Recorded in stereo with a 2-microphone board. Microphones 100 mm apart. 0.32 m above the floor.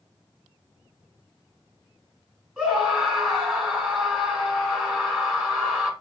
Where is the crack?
I don't hear a crack.